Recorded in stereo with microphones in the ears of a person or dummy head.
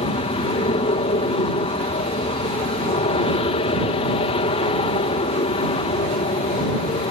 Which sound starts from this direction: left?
An aircraft, at 0.0 s.